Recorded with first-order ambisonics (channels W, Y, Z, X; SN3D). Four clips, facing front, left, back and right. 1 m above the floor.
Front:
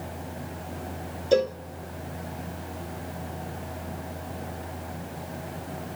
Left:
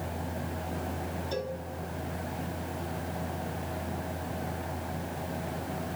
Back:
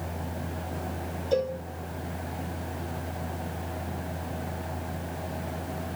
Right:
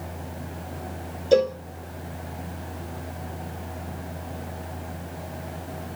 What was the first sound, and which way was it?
A cowbell, 60° right.